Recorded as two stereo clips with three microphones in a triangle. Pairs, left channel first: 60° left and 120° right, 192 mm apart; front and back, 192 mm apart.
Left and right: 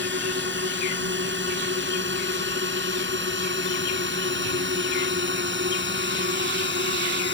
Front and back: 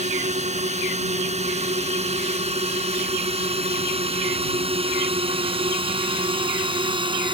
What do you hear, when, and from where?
0.0 s a drone: 130° right; by 7.3 s 115° right